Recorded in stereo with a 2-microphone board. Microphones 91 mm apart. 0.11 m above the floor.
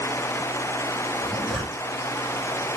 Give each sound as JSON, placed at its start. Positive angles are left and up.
{"t": 1.2, "sound": "a zipper", "side_deg": 0, "distance_m": 2.0}